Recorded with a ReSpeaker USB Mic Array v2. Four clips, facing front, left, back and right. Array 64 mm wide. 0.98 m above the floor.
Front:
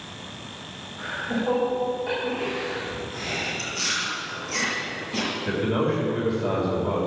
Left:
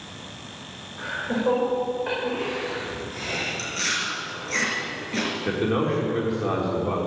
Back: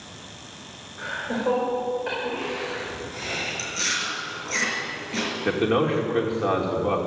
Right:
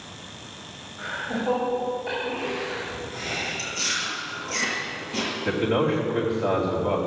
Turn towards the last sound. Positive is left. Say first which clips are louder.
# right 2 dB, back 3 dB
turn(degrees=175)